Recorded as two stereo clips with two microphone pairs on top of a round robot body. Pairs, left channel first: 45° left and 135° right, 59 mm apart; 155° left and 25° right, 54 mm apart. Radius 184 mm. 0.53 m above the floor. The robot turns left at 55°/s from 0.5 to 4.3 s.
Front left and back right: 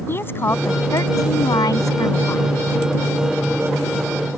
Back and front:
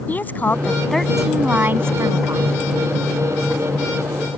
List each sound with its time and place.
0.1 s a woman speaking: 95° left; by 2.5 s 10° right